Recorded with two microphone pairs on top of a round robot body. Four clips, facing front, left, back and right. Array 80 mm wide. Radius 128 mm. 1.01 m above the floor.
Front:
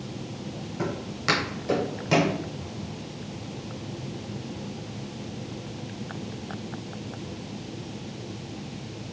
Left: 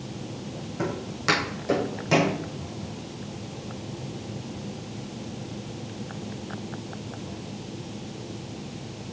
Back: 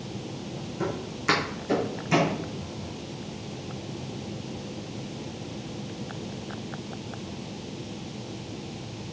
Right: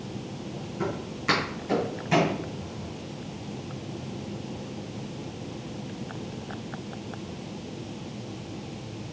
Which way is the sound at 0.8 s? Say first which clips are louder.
Left 2 dB, front 1 dB; 50° left.